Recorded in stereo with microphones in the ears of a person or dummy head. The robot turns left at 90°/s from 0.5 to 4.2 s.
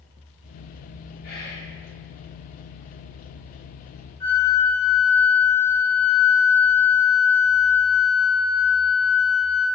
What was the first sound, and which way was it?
Whispering, 125° left.